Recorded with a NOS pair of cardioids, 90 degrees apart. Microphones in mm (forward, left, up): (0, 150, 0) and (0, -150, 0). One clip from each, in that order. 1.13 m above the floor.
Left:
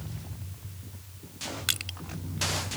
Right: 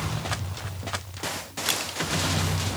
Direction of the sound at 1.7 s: 5° left.